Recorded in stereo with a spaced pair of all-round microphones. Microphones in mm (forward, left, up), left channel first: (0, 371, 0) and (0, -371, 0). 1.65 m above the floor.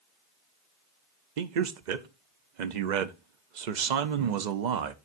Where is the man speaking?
75° right (ahead or behind), 0.8 m.